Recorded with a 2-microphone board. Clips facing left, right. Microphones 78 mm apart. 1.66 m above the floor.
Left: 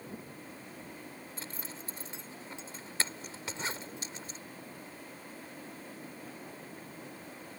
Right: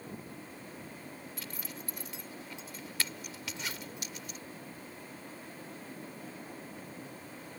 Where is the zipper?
30° left (ahead or behind).